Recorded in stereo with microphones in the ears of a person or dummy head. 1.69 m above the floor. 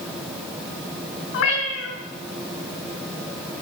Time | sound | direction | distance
1.3 | a cat meowing | 75° left (ahead or behind) | 5.5 m